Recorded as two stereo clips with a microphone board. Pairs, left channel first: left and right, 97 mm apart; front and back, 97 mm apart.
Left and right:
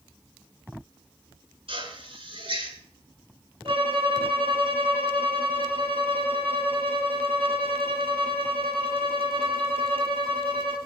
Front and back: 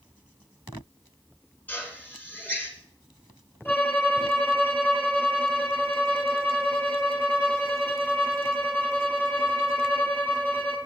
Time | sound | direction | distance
1.7 | a drill | 75° right | 9.5 m
3.6 | a violin | 70° right | 9.5 m